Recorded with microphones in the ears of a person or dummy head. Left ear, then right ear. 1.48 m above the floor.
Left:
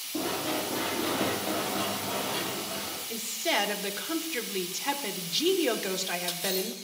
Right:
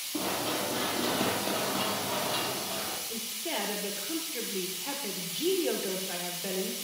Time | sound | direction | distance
0.1 | running footsteps | 5° right (ahead or behind) | 4 m
3.1 | a woman speaking | 50° left (ahead or behind) | 1.5 m